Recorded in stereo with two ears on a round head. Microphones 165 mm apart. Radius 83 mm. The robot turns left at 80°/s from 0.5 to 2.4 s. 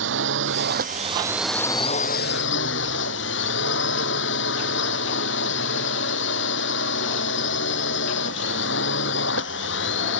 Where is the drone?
100° right; by 10.2 s 105° left.